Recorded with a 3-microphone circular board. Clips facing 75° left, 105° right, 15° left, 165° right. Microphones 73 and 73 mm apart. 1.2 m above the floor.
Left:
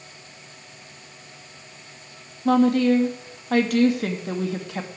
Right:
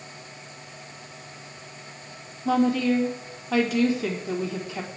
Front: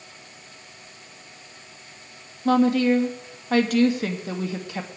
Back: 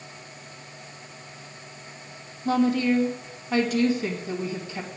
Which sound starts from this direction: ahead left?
A woman speaking, at 2.5 s.